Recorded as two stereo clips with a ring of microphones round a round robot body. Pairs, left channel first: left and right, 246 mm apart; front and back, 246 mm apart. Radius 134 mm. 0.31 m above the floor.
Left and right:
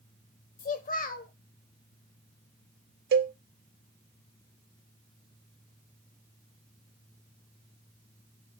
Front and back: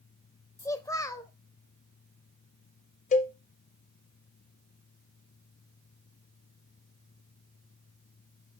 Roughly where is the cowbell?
Ahead right.